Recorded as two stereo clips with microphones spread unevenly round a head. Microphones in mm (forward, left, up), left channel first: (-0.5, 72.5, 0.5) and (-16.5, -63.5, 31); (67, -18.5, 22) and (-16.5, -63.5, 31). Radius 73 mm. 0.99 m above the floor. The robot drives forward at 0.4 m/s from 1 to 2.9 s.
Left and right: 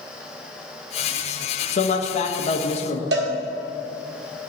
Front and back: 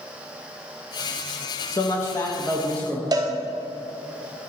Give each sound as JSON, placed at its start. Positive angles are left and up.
{"t": 1.7, "sound": "a man speaking", "azimuth_deg": 80, "distance_m": 1.2}
{"t": 3.1, "sound": "a cowbell", "azimuth_deg": -105, "distance_m": 1.5}